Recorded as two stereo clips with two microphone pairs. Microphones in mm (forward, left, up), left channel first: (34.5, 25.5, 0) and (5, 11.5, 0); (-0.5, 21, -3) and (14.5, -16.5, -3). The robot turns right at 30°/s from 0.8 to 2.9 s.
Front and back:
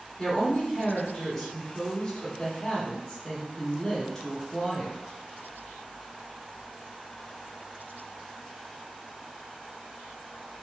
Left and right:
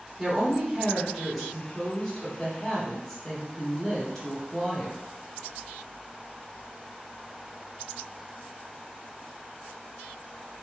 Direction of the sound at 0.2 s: 15° left.